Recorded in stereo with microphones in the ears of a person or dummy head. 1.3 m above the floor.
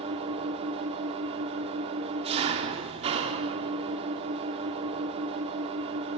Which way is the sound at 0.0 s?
30° right (ahead or behind).